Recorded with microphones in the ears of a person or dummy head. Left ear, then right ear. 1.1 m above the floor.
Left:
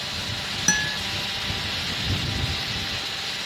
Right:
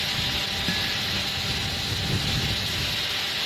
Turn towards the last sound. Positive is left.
turn(degrees=50)  # may be behind; listen again after turning